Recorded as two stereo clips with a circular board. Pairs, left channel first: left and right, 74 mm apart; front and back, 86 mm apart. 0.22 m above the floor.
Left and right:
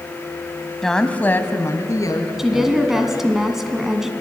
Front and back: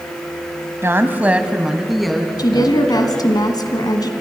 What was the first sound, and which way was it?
A woman speaking, 170° left.